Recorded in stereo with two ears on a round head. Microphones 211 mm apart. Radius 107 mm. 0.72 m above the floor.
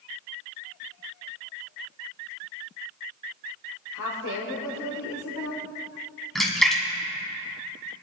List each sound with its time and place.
3.9 s a woman speaking: 75° left (ahead or behind), 2 m
6.3 s a splash: centre (ahead or behind), 2 m